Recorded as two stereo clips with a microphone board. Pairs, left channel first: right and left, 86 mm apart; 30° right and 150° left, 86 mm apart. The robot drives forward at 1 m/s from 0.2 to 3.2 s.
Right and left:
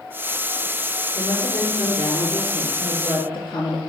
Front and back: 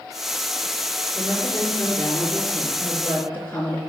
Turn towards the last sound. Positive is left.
turn(degrees=-95)